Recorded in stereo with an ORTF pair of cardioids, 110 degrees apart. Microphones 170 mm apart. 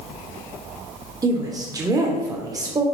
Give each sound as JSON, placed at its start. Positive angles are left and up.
{"t": 1.2, "sound": "a woman speaking", "azimuth_deg": -20, "distance_m": 1.0}